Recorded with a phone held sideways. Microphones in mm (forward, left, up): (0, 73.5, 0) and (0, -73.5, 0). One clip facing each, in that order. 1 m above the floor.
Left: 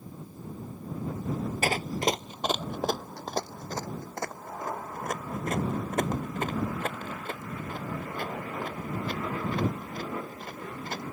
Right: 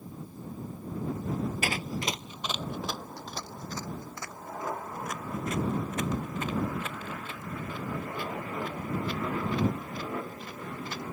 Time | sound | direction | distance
1.6 | running footsteps | 40° left (ahead or behind) | ?